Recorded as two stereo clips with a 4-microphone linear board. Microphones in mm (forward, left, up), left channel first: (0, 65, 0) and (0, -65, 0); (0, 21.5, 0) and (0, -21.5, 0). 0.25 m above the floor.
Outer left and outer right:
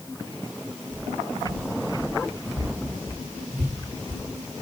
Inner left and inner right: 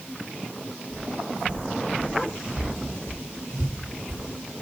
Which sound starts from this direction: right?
Footsteps, at 0.9 s.